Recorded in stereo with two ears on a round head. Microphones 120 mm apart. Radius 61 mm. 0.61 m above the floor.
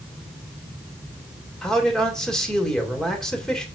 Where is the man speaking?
5° left (ahead or behind), 1.9 m.